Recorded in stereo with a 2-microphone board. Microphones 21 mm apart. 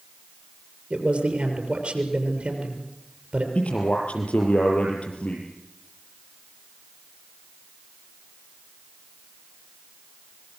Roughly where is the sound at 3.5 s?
Left.